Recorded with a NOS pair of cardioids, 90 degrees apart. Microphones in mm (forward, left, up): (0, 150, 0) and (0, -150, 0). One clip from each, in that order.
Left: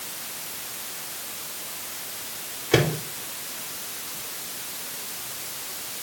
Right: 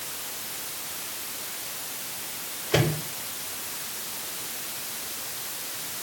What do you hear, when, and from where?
2.7 s a microwave: 70° left, 5 m